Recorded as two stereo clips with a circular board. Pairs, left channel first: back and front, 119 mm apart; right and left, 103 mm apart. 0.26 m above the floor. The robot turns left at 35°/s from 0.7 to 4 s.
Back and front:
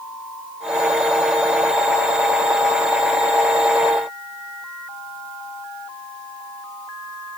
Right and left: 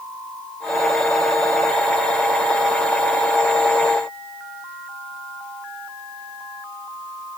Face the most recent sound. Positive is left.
No sound to turn to.